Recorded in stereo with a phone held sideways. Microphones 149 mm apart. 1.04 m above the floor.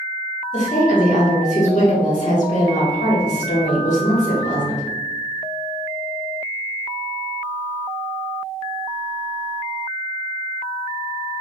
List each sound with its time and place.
0.5 s a woman speaking: 60° left (ahead or behind), 1.4 m